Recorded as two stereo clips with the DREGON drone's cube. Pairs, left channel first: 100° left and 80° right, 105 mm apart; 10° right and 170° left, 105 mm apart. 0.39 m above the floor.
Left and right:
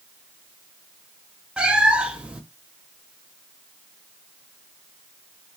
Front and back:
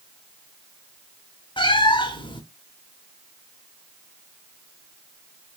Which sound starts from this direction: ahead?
A cat meowing, at 1.6 s.